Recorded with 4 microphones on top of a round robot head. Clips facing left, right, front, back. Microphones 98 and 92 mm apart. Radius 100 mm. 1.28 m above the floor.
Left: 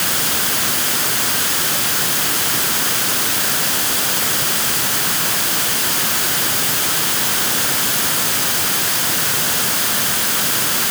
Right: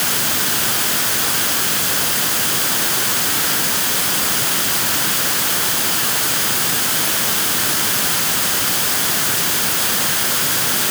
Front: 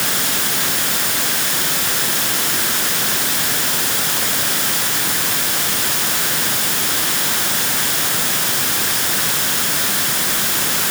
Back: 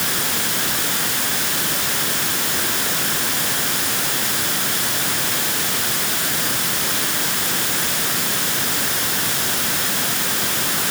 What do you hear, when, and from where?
Only background noise.